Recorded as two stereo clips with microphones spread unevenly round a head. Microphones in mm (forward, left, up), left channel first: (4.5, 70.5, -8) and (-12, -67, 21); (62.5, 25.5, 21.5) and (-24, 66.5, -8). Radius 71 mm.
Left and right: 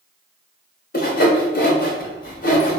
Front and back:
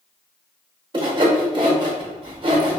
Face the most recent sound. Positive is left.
turn(degrees=110)